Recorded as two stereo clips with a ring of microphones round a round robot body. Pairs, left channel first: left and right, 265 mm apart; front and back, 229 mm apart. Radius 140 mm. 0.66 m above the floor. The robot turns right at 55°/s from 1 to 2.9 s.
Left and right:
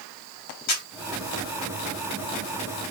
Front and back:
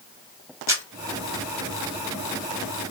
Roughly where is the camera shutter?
Left.